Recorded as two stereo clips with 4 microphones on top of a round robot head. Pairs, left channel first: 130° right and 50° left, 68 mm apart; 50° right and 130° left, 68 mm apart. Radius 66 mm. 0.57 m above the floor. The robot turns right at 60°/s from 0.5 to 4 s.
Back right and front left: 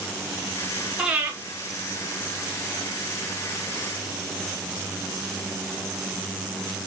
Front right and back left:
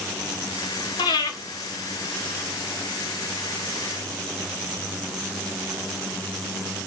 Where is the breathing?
30° right, 0.6 m; by 1.3 s 10° right, 0.6 m.